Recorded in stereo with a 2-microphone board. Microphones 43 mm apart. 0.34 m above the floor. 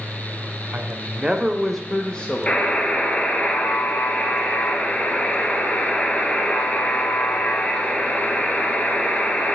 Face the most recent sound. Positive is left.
turn(degrees=30)  # may be behind; listen again after turning